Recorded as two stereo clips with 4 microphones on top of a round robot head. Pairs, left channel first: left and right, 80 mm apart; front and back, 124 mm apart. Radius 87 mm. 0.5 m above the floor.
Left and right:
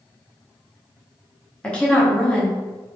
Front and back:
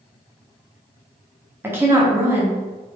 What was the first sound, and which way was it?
A woman speaking, 140° left.